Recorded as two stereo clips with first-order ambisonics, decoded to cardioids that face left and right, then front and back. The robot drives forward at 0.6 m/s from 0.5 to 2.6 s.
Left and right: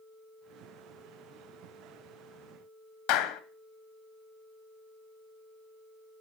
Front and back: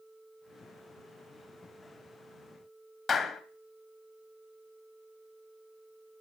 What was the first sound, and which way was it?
A clap, 75° left.